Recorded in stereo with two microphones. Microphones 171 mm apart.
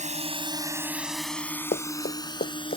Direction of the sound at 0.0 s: 45° right (ahead or behind).